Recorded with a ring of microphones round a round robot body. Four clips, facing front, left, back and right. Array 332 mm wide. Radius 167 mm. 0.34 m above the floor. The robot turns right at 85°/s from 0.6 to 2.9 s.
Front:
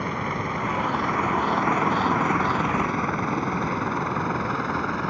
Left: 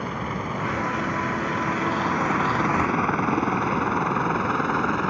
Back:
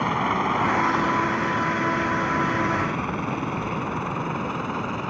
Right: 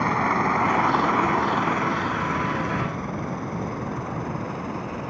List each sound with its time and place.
0.0 s a helicopter: 125° right; by 5.1 s 80° left